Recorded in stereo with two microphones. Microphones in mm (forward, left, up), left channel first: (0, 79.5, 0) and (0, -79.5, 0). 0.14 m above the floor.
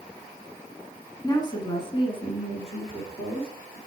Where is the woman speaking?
25° left (ahead or behind), 1.1 m; by 3.8 s 35° left (ahead or behind), 2 m.